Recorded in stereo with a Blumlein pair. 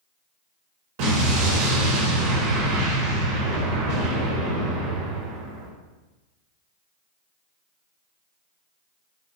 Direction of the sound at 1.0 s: 50° right.